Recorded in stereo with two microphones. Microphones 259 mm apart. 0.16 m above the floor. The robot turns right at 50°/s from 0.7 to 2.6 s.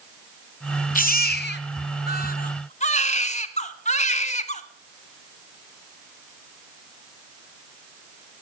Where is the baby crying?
55° left, 0.9 m; by 4.6 s 135° left, 0.9 m.